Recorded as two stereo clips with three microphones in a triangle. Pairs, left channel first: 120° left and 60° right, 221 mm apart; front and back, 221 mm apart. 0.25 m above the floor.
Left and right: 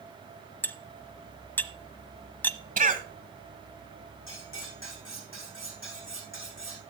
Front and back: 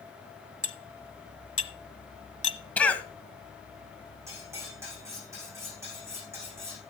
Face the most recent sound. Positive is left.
turn(degrees=105)